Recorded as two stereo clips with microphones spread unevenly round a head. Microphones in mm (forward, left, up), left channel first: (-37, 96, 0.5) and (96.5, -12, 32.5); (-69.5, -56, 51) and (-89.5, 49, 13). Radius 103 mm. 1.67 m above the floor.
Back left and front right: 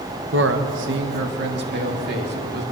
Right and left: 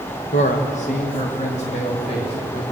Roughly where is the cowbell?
No cowbell in this recording.